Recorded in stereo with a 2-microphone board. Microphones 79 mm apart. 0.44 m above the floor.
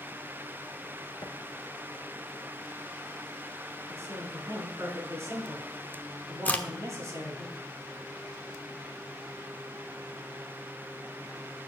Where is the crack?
20° left (ahead or behind), 0.8 m.